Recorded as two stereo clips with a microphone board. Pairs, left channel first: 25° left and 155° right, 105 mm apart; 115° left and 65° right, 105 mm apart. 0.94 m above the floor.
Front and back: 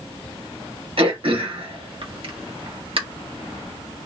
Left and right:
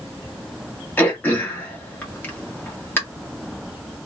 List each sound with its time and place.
1.0 s throat clearing: straight behind, 1.5 m